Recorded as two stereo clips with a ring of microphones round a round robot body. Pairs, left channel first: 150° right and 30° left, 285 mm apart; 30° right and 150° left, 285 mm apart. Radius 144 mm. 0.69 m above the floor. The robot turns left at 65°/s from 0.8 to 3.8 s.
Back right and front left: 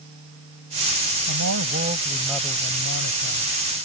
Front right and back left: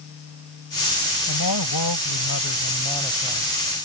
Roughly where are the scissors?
I don't hear scissors.